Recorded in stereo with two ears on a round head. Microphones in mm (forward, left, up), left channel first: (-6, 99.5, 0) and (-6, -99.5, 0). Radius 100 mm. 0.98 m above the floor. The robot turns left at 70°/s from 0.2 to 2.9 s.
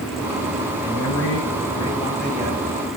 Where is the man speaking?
100° left, 7 m; by 2.6 s 25° right, 7 m.